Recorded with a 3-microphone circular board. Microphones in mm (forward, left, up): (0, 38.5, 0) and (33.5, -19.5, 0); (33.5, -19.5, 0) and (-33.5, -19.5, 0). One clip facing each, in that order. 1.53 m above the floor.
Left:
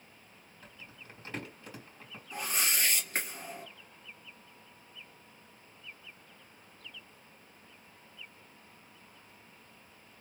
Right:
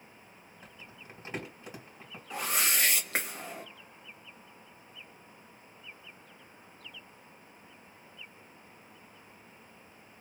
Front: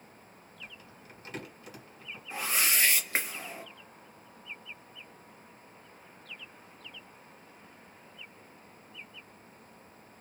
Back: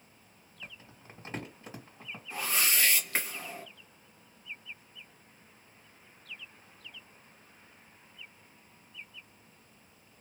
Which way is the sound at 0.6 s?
130° right.